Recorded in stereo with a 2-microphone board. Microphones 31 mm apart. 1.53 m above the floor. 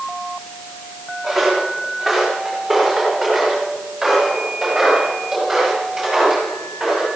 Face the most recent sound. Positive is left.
turn(degrees=-5)  # may be behind; listen again after turning